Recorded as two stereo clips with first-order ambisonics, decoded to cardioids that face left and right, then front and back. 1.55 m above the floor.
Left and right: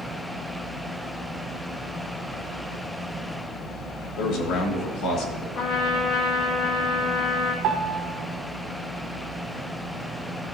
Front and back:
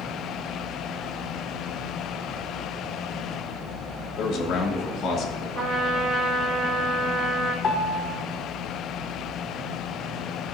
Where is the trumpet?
120° left, 2 m.